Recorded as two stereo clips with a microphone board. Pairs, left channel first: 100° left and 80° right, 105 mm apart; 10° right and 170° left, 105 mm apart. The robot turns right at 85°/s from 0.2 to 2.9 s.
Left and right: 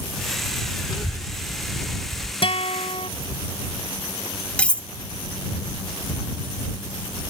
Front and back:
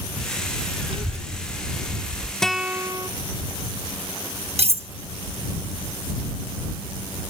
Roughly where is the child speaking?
Behind left.